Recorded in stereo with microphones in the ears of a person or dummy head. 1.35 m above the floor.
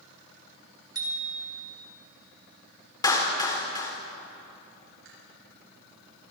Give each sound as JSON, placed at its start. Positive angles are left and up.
{"t": 0.9, "sound": "a bicycle bell", "side_deg": -20, "distance_m": 3.0}
{"t": 3.0, "sound": "a clap", "side_deg": 25, "distance_m": 3.0}
{"t": 5.0, "sound": "chewing", "side_deg": -80, "distance_m": 8.5}